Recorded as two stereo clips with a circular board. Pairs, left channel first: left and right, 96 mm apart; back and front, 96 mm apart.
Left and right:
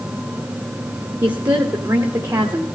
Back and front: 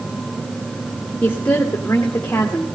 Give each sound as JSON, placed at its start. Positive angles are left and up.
{"t": 1.2, "sound": "a woman speaking", "azimuth_deg": -110, "distance_m": 1.7}